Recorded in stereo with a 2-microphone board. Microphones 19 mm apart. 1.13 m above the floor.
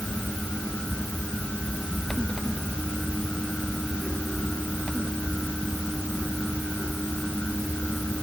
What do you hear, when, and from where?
Only background noise.